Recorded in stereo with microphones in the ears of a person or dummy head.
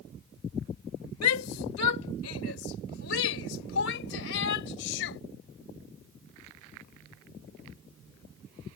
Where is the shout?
85° left; by 5.2 s 65° left (ahead or behind).